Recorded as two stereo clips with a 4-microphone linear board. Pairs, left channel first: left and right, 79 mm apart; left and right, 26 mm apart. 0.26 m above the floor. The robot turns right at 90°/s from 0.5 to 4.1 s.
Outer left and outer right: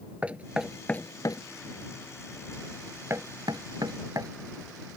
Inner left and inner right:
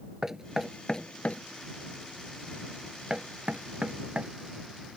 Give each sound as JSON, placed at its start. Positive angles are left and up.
{"t": 0.2, "sound": "knocking", "side_deg": -15}